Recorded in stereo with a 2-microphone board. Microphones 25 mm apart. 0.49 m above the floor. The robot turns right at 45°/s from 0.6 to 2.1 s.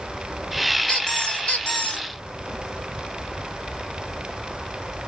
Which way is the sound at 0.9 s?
40° left.